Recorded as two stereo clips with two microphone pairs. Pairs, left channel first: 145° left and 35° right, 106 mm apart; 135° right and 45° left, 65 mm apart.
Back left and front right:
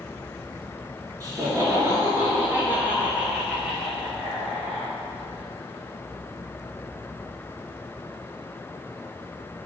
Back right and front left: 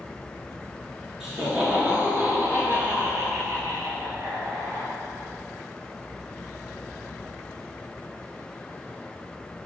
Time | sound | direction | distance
1.2 | laughter | 35° right | 1.8 m